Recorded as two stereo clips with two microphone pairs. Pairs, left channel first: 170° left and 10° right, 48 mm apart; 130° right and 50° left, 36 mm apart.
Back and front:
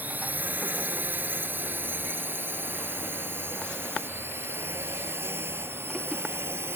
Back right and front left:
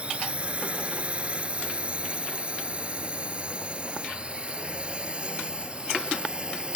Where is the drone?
10° left; by 6.8 s 10° right.